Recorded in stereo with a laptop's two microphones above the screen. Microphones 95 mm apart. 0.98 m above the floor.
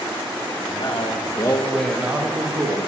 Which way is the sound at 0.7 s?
65° left (ahead or behind).